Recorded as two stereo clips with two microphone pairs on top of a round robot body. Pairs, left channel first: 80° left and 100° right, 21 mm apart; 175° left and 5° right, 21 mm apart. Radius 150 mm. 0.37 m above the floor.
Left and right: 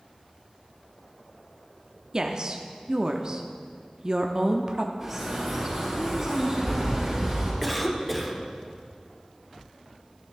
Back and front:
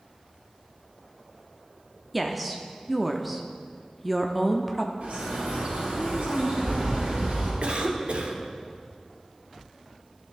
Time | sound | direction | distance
2.1 | a woman speaking | 110° right | 0.9 m
5.0 | a bird | 25° right | 4 m
7.6 | a cough | 10° right | 1.6 m